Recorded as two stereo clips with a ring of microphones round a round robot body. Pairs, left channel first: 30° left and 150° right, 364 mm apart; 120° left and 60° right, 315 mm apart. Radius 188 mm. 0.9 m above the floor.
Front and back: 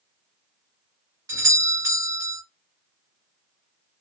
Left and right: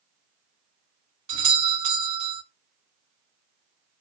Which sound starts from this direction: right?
A doorbell, at 1.3 s.